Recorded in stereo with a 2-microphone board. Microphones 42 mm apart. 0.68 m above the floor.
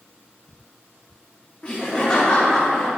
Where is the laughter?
35° left (ahead or behind), 1.1 m; by 2.9 s 20° left (ahead or behind), 2 m.